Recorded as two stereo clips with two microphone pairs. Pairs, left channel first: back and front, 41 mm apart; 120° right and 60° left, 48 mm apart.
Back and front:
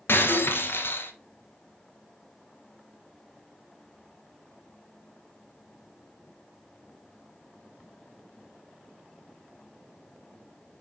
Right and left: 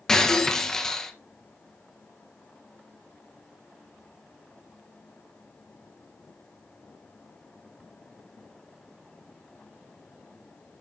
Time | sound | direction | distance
0.1 | breaking glass | 165° left | 1.1 m